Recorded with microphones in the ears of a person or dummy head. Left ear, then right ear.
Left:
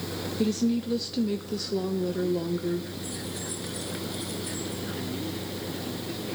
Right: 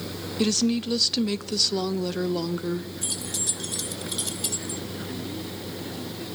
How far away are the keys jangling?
About 1.3 m.